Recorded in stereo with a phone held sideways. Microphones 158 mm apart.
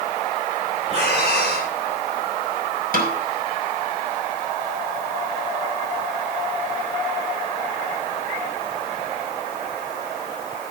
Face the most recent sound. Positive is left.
turn(degrees=-70)  # may be behind; listen again after turning